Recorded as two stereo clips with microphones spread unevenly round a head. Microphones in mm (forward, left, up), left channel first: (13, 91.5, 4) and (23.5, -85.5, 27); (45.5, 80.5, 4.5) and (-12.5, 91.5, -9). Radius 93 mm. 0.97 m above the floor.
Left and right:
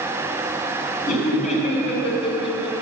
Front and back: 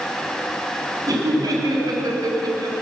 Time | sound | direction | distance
1.1 | laughter | 150° left | 5 m